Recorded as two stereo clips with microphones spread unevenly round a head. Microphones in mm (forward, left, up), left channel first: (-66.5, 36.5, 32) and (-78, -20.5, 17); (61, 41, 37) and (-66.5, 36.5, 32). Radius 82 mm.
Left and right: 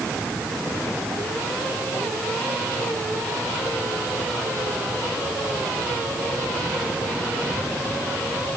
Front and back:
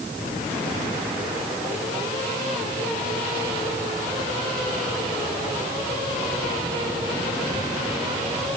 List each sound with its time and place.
Only background noise.